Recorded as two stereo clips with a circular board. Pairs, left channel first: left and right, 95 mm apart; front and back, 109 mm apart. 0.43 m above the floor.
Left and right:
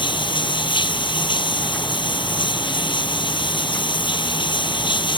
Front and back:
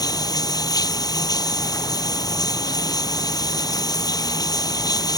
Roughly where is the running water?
Ahead left.